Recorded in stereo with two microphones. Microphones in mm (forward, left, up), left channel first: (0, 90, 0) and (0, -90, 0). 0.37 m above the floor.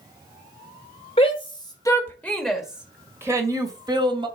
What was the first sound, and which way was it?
A shout, 30° left (ahead or behind).